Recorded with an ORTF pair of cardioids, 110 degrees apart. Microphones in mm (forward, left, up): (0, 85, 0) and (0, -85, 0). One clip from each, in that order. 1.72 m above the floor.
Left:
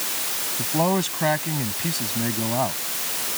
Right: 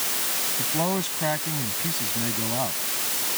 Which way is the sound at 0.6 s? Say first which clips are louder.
Left 6 dB; 30° left.